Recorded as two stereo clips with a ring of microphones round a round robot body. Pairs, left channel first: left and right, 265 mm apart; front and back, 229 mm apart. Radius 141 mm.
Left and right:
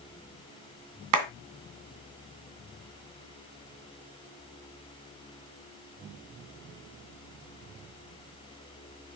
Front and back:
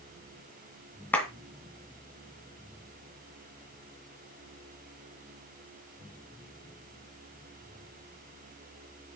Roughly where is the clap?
Right.